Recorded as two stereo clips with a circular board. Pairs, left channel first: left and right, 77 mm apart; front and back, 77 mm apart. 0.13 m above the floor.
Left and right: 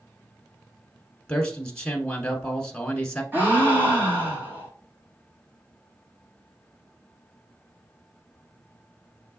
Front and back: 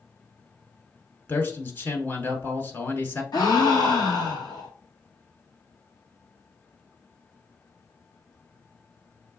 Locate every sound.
1.3 s a man speaking: 25° left, 1.2 m
3.3 s a gasp: 25° right, 1.6 m